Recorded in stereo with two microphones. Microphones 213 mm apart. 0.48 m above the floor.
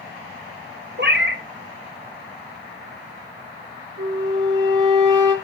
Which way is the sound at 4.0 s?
20° right (ahead or behind).